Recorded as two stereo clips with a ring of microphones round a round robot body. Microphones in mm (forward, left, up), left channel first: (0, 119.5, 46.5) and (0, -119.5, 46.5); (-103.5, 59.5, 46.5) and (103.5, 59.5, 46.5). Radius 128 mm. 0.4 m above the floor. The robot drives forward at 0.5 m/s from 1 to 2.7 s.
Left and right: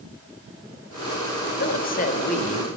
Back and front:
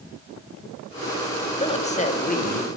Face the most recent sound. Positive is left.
turn(degrees=145)